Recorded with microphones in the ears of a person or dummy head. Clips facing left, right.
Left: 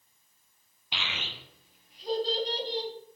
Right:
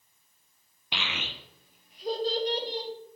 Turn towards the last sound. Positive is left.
turn(degrees=-45)  # may be behind; listen again after turning